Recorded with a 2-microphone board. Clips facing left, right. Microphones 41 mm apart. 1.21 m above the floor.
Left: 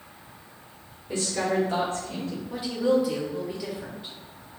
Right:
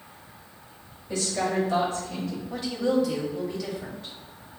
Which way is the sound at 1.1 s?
30° left (ahead or behind).